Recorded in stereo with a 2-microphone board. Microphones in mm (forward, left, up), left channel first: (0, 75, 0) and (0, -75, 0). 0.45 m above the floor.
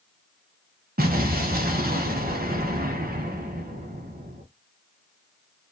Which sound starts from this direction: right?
An explosion, at 1.0 s.